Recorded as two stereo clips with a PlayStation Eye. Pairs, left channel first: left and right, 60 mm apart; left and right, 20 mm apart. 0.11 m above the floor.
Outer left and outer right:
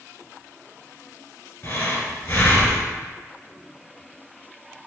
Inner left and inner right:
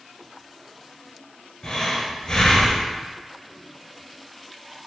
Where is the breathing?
30° left (ahead or behind), 0.8 m.